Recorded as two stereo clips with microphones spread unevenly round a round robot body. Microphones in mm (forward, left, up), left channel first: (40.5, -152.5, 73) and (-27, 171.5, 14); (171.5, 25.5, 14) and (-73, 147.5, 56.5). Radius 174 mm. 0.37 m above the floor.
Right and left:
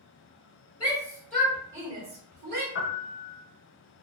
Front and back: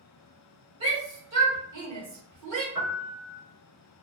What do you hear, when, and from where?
0.8 s a shout: 160° right, 1.5 m; by 2.6 s 150° left, 1.4 m
2.8 s a piano: 130° right, 0.7 m